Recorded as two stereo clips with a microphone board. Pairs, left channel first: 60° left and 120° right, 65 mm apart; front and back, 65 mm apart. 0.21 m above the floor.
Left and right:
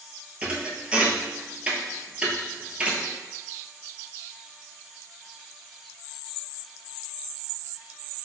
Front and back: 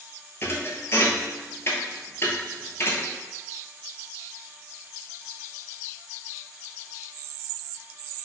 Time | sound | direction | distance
0.4 | a thud | 50° right | 0.7 m